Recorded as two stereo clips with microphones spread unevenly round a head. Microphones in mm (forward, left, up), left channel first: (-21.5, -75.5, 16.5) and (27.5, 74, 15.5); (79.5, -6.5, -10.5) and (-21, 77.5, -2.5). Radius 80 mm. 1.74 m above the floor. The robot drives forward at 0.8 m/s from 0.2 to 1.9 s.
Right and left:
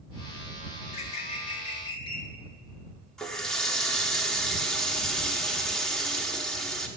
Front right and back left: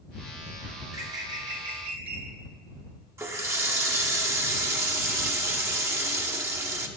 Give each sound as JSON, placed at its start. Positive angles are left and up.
{"t": 0.8, "sound": "a bird", "azimuth_deg": -150, "distance_m": 0.8}
{"t": 3.2, "sound": "a running tap", "azimuth_deg": 170, "distance_m": 0.7}